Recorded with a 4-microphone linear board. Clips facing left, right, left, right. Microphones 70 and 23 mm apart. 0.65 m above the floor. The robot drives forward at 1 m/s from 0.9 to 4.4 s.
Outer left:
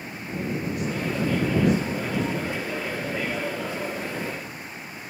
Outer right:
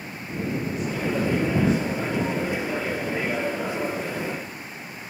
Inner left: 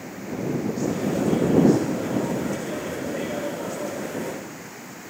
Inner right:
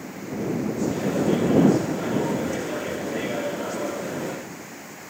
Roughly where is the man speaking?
Left.